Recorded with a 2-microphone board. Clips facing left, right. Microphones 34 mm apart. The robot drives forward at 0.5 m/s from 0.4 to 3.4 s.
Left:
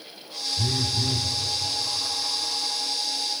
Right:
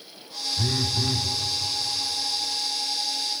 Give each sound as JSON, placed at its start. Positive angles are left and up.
{"t": 0.6, "sound": "a phone buzzing", "side_deg": -20, "distance_m": 0.8}